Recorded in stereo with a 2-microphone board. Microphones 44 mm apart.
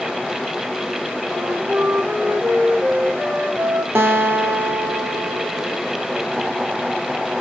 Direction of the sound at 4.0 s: 75° right (ahead or behind).